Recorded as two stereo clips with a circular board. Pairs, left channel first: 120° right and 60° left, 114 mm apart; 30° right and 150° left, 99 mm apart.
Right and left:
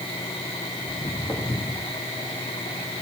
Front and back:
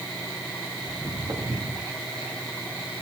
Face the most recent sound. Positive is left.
turn(degrees=180)